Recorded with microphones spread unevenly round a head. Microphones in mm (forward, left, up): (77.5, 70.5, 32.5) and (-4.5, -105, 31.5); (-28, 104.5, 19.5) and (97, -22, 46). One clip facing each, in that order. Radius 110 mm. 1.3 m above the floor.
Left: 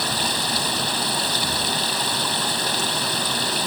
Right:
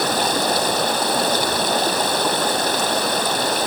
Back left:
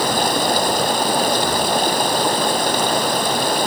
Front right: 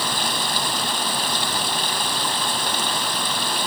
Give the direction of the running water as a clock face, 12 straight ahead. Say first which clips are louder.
Right 7 dB, back left 9 dB; 6 o'clock.